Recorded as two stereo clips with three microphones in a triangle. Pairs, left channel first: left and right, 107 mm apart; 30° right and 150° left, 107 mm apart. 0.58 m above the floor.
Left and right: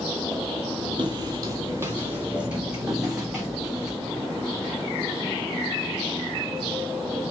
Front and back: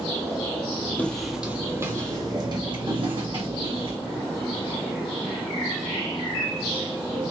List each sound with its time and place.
1.0 s footsteps: 100° right, 0.8 m; by 4.0 s straight behind, 2.5 m